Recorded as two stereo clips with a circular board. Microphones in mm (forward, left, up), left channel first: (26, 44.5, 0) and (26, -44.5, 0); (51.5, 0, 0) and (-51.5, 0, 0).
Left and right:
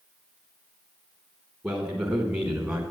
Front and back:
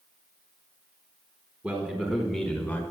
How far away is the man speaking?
About 1.4 m.